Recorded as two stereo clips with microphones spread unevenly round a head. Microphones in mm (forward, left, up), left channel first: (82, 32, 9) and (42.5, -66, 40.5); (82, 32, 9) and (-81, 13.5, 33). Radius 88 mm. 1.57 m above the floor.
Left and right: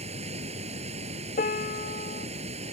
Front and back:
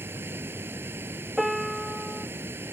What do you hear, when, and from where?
0.0 s running water: 95° right
1.4 s a piano: 100° left